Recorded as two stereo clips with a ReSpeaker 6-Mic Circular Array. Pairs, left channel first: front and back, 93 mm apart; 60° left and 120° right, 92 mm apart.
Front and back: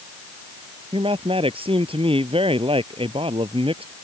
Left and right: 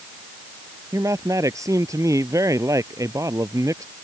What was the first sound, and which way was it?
A man speaking, 175° right.